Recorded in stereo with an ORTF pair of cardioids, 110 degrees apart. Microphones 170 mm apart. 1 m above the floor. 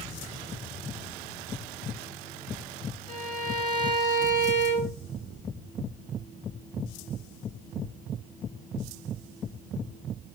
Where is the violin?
50° left, 2.5 m.